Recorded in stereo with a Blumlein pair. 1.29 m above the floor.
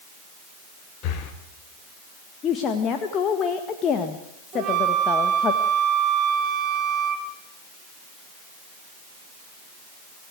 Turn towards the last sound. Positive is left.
turn(degrees=-35)